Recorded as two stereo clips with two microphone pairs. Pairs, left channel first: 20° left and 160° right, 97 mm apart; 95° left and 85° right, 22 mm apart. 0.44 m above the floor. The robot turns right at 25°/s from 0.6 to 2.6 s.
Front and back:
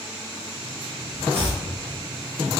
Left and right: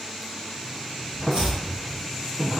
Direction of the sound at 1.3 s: 60° right.